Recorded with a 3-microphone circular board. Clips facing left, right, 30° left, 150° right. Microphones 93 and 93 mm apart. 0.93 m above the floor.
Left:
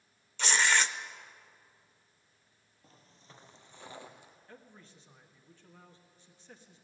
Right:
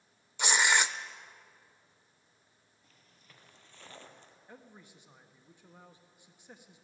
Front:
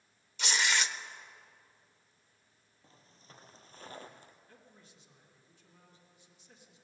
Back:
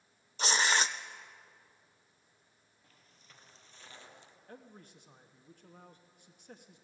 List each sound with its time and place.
0.4 s tearing paper: 155° right, 0.7 m
2.8 s footsteps: 65° left, 1.1 m; by 4.4 s 10° left, 1.5 m
4.5 s a man speaking: 165° right, 1.3 m